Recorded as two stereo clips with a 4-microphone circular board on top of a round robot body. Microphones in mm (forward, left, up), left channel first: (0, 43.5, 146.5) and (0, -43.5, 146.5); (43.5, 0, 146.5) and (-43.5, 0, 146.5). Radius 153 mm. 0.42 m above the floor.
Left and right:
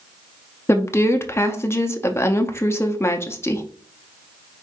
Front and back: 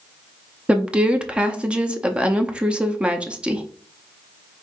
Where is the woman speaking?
115° left, 0.9 m.